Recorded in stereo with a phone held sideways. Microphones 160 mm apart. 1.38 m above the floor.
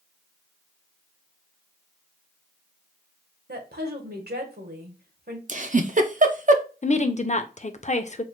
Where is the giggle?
55° right (ahead or behind), 0.5 m.